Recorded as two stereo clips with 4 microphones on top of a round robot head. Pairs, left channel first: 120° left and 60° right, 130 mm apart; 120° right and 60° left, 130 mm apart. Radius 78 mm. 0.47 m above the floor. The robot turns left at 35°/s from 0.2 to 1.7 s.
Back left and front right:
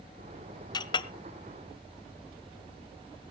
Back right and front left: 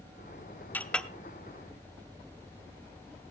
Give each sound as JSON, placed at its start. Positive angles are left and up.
{"t": 0.7, "sound": "a clink", "azimuth_deg": 165, "distance_m": 0.7}